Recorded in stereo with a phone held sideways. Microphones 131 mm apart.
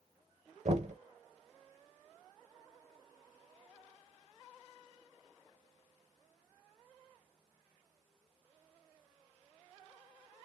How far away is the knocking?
About 0.7 m.